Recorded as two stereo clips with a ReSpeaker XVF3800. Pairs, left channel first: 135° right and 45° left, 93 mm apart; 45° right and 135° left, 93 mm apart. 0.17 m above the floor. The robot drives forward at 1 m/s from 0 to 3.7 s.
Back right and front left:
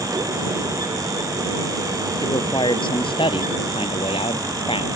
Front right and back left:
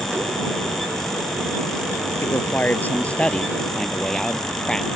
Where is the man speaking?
105° right; by 4.9 s 130° right.